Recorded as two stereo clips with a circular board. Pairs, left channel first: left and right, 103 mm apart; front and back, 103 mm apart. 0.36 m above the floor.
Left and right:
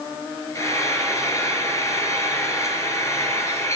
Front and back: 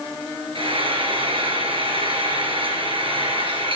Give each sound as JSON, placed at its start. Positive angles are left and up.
{"t": 0.6, "sound": "frying", "azimuth_deg": 150, "distance_m": 2.5}